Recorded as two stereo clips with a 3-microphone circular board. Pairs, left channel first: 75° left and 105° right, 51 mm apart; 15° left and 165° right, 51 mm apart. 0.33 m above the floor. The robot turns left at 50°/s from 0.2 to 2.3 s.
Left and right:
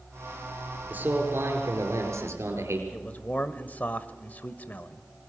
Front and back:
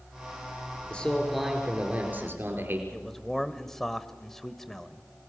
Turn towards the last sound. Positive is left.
turn(degrees=95)